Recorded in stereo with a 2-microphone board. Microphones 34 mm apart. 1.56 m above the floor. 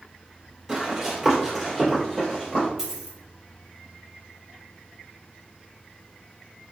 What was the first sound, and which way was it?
Running footsteps, 15° right (ahead or behind).